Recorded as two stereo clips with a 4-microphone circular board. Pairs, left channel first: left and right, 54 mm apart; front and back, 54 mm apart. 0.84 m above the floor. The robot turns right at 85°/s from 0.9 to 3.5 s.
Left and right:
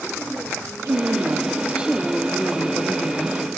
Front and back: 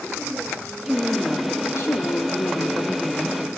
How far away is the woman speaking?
About 1.5 m.